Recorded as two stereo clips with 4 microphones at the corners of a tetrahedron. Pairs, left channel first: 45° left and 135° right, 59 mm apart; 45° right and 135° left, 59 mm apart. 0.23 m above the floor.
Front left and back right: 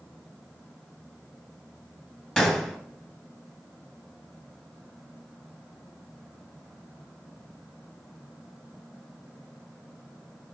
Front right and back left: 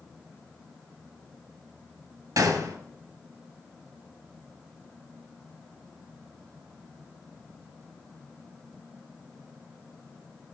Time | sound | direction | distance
2.4 | a gunshot | 120° left | 1.7 m